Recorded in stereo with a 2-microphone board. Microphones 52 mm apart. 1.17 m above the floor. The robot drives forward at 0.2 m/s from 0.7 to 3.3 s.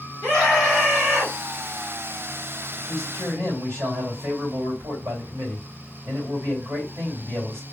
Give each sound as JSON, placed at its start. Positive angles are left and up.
{"t": 0.2, "sound": "a scream", "side_deg": -45, "distance_m": 1.8}
{"t": 2.8, "sound": "a man speaking", "side_deg": -80, "distance_m": 2.5}